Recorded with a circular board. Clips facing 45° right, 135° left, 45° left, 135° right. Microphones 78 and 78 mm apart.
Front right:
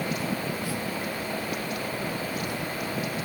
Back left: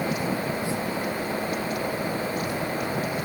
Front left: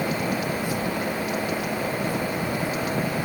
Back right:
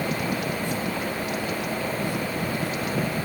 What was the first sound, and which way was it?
Only background noise.